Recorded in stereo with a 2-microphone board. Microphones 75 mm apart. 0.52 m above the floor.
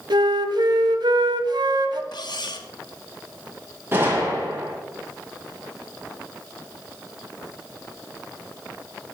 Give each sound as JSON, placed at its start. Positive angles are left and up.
{"t": 0.1, "sound": "a flute", "side_deg": -75, "distance_m": 0.9}
{"t": 2.1, "sound": "cutlery clinking", "side_deg": 70, "distance_m": 0.8}
{"t": 3.9, "sound": "a gunshot", "side_deg": -30, "distance_m": 3.5}